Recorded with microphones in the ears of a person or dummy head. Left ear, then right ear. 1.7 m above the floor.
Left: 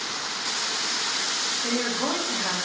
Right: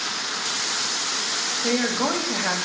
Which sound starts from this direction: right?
A woman speaking, at 1.6 s.